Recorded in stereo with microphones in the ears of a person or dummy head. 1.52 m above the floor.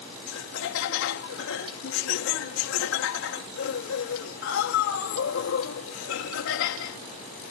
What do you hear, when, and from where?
0.3 s laughter: 75° left (ahead or behind)